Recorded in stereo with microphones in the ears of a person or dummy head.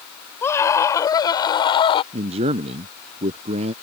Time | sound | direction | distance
0.4 | a scream | 15° left (ahead or behind) | ?
2.1 | a man speaking | 35° right (ahead or behind) | ?